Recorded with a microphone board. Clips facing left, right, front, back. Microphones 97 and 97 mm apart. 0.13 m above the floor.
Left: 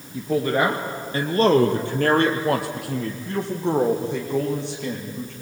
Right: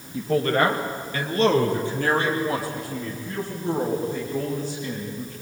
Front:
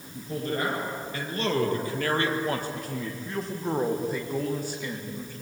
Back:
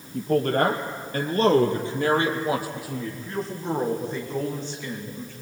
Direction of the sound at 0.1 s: Straight behind.